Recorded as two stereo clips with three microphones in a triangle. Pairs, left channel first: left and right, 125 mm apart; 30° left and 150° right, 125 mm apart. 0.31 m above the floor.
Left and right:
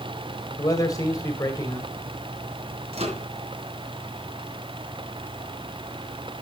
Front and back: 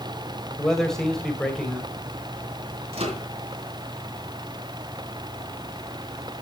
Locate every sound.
0.6 s a man speaking: 110° left, 1.7 m
2.9 s a microwave: 115° right, 2.5 m